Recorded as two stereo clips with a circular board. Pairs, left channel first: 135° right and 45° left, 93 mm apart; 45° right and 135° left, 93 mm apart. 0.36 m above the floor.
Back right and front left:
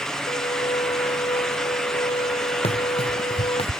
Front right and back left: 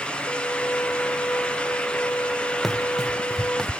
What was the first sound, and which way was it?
A violin, 115° right.